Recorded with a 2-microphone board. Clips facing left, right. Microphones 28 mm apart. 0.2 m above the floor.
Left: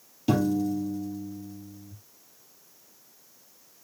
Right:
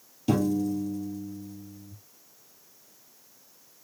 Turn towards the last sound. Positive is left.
turn(degrees=10)  # may be behind; listen again after turning